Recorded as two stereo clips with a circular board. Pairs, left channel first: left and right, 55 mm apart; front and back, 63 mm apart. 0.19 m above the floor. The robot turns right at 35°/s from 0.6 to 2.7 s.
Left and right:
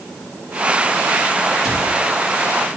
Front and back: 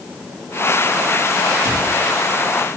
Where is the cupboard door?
170° right, 3 m; by 1.9 s 160° right, 3 m.